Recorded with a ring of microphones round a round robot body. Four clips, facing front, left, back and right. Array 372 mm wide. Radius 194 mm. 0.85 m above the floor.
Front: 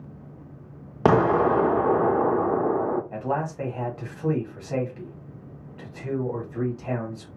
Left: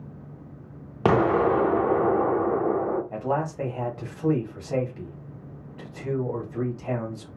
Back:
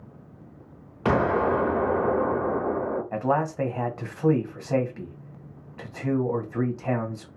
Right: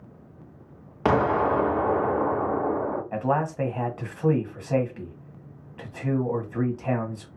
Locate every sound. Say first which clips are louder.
1.1 s an explosion: left 1 dB, front 3 dB; 20° left, 0.6 m
3.1 s a man speaking: right 2 dB, back 3 dB; 140° right, 1.1 m